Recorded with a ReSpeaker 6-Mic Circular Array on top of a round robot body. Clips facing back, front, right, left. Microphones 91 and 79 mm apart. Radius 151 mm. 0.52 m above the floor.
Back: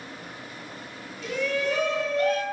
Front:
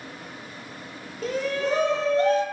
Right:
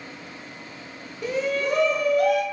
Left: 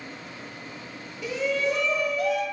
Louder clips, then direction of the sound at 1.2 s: Front 1 dB, right 1 dB; 45° right.